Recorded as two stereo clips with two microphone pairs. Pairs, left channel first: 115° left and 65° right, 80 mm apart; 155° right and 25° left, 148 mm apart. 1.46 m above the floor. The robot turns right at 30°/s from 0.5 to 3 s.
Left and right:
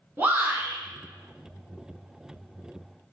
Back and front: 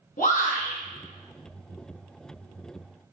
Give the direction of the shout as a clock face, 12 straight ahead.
4 o'clock.